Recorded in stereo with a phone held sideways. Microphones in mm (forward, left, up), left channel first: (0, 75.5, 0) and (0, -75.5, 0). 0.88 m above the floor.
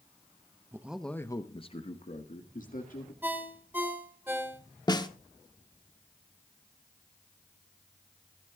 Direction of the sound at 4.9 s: 30° left (ahead or behind).